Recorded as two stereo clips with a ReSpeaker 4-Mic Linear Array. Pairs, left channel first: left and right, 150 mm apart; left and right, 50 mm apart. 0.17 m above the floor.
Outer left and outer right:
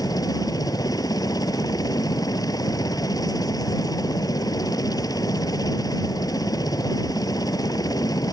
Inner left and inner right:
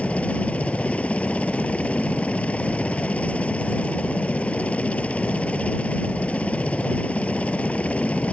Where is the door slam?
I don't hear a door slam.